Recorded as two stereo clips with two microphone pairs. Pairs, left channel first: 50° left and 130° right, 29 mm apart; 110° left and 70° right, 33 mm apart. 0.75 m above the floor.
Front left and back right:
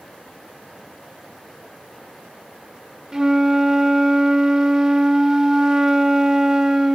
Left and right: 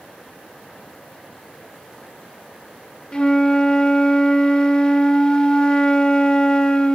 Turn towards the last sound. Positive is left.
turn(degrees=170)